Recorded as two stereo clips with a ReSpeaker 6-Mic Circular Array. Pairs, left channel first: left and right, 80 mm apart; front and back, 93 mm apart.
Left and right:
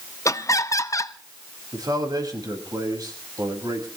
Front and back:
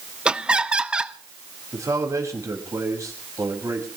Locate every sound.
0.2 s laughter: 105° left, 0.9 m
1.7 s a man speaking: 125° right, 5.5 m